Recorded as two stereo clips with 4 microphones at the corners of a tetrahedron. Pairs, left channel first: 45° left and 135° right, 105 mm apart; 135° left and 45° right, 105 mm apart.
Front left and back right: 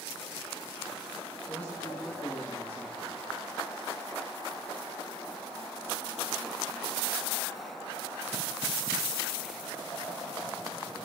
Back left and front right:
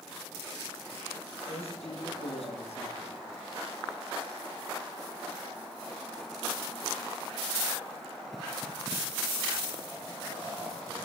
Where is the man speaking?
125° left, 7.5 m; by 3.2 s 130° left, 9.5 m.